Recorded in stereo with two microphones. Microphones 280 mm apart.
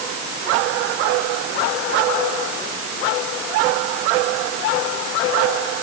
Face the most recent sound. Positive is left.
No sound to turn to.